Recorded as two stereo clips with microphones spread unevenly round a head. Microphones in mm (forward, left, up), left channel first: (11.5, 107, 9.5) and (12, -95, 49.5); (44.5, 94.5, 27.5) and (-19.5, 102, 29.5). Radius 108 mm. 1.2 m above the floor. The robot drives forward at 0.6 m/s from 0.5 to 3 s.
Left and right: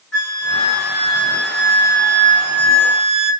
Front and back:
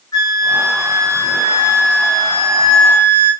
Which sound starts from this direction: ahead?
A flute, at 0.1 s.